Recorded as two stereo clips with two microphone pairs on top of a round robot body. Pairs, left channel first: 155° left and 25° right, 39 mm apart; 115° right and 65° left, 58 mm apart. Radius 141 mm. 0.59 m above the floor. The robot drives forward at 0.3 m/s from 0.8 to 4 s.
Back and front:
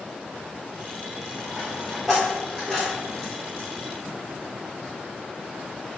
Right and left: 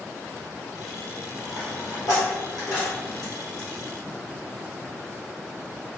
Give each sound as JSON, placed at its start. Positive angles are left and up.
{"t": 1.4, "sound": "a dropped coin", "azimuth_deg": -95, "distance_m": 1.5}